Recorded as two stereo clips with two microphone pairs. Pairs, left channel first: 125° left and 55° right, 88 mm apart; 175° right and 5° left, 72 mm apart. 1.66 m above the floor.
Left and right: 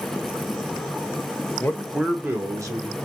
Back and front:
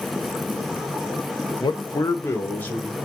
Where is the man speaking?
175° right, 0.5 m; by 3.0 s 100° right, 1.1 m.